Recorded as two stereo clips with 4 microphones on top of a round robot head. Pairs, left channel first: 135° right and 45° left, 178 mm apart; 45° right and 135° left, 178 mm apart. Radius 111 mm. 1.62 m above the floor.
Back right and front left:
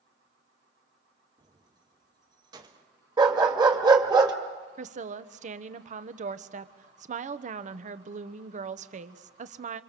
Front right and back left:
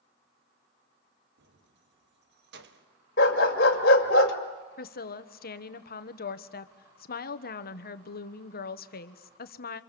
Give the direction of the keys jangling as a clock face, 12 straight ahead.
8 o'clock.